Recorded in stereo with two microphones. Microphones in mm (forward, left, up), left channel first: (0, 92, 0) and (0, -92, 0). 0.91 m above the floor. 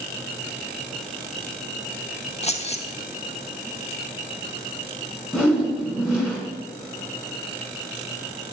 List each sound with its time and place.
2.4 s keys jangling: 35° left (ahead or behind), 0.6 m
5.3 s a whoosh: 5° right (ahead or behind), 1.6 m